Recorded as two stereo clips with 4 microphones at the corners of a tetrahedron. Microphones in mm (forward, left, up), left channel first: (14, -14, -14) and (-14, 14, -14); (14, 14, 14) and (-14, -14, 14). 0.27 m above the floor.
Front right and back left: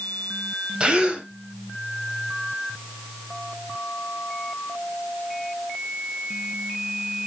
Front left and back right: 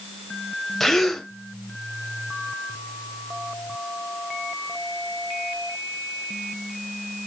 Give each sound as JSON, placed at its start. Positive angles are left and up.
{"t": 0.8, "sound": "a gasp", "azimuth_deg": 120, "distance_m": 1.1}